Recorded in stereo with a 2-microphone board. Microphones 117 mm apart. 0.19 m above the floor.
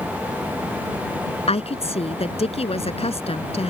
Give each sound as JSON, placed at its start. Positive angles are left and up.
{"t": 1.5, "sound": "a woman speaking", "side_deg": 60}